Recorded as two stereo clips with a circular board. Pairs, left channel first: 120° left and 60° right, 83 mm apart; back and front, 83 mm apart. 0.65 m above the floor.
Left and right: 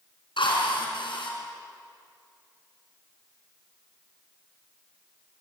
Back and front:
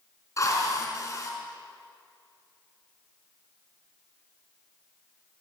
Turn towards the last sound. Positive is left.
turn(degrees=130)